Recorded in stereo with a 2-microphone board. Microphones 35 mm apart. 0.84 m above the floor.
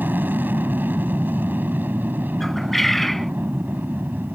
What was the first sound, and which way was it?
An aircraft, 75° right (ahead or behind).